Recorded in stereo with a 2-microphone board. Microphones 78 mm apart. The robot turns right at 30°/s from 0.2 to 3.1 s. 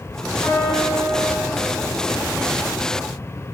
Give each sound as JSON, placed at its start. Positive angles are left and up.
{"t": 0.4, "sound": "a piano", "side_deg": 45, "distance_m": 4.5}